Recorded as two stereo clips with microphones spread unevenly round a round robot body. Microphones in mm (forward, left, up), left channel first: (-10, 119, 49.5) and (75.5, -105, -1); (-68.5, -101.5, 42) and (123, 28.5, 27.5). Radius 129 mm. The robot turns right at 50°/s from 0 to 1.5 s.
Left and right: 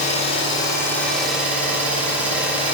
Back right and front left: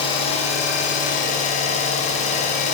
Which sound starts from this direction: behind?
An engine running, at 0.0 s.